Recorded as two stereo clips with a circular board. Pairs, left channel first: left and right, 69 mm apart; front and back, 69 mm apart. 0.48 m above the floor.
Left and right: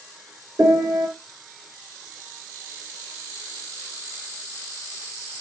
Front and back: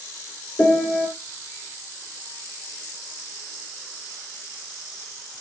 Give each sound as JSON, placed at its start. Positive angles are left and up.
{"t": 0.6, "sound": "a piano", "azimuth_deg": -70, "distance_m": 7.5}